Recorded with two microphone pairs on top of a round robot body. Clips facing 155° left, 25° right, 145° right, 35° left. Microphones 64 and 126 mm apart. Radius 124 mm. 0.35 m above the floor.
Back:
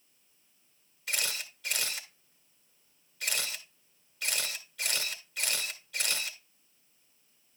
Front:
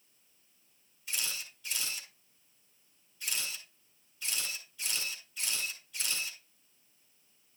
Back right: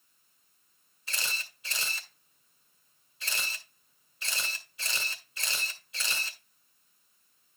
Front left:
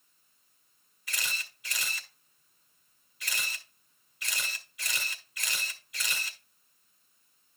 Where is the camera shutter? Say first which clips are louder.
Back 5 dB, even; 155° left, 2.5 m.